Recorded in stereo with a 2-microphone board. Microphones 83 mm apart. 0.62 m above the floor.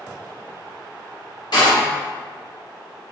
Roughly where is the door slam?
Left.